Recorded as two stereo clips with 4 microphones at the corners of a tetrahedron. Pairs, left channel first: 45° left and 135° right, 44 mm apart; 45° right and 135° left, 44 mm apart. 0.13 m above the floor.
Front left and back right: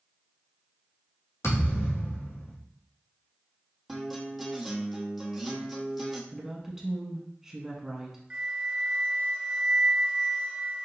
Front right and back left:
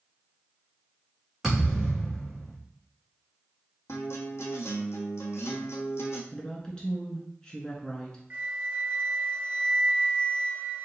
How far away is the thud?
About 1.8 m.